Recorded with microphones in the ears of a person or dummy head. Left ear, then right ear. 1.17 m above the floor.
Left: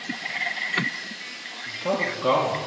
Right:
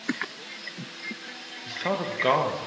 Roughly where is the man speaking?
Right.